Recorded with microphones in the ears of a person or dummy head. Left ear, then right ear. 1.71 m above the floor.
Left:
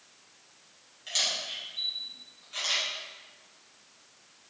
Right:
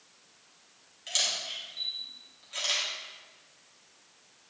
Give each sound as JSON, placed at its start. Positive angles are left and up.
{"t": 1.1, "sound": "a camera shutter", "side_deg": -5, "distance_m": 1.3}